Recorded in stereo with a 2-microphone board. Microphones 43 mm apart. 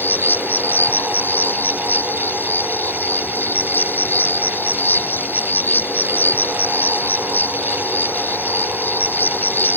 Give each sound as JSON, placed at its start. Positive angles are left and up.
{"t": 0.0, "sound": "an insect", "side_deg": 55}